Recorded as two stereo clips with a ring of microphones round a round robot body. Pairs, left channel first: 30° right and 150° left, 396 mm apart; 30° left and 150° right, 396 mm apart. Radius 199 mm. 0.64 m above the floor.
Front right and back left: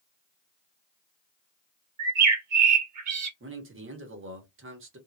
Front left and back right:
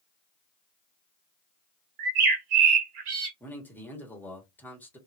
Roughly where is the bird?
Behind.